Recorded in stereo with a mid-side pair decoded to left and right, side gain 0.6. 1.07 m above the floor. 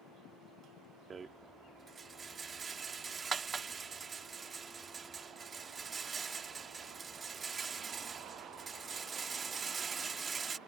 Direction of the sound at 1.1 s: 30° right.